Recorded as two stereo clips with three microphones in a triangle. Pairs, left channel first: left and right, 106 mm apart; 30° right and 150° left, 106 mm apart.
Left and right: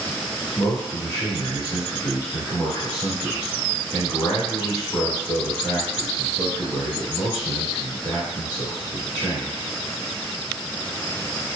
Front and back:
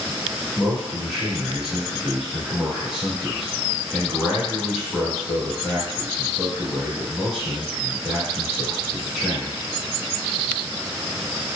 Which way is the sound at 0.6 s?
70° left.